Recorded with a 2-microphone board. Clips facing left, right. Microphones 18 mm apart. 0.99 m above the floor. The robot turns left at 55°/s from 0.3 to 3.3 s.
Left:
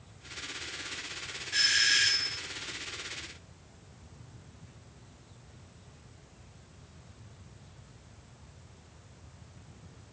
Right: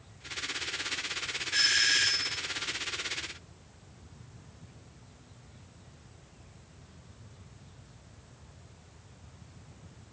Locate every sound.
1.5 s a doorbell: centre (ahead or behind); by 2.4 s 15° left (ahead or behind)